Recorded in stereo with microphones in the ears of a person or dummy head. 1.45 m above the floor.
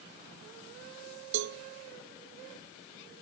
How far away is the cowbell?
About 0.5 m.